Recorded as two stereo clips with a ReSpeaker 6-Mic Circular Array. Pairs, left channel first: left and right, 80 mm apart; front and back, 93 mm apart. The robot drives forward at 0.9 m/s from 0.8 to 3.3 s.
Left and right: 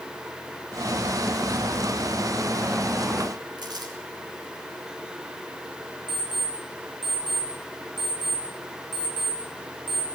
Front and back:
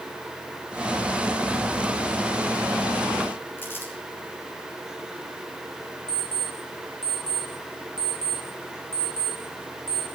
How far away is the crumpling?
About 3.5 m.